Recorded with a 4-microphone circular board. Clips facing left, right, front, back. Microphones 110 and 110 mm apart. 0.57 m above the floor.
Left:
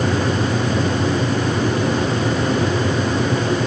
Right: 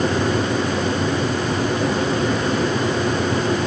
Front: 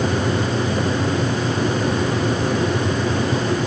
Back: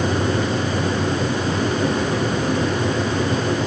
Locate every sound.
Only background noise.